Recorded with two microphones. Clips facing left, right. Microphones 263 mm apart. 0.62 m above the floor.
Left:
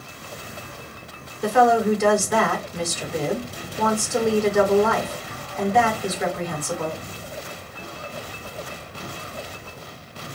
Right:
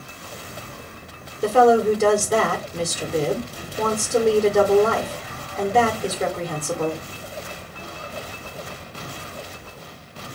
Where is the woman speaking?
35° right (ahead or behind), 1.9 m.